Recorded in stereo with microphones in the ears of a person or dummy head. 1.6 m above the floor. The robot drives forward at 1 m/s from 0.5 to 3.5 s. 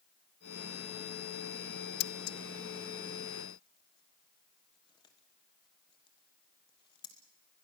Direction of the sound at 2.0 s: 60° left (ahead or behind).